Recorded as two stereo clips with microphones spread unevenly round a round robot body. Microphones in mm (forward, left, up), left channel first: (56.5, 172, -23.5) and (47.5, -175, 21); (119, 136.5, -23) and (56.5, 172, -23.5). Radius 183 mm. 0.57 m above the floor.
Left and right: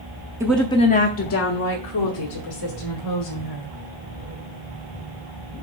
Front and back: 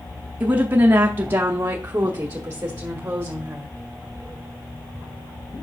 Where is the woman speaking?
Straight behind, 0.6 m; by 3.8 s 85° left, 2 m.